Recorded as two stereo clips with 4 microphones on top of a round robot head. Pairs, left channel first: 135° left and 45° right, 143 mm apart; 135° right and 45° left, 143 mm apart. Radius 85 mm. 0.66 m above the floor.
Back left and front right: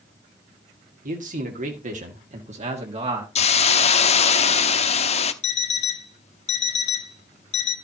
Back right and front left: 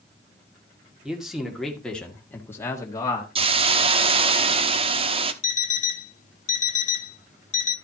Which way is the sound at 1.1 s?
40° right.